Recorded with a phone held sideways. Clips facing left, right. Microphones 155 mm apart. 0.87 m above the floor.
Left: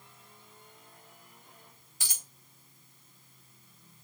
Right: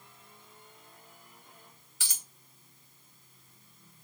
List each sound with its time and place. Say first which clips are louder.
2.0 s a dropped coin: left 1 dB; 40° left (ahead or behind), 2.5 m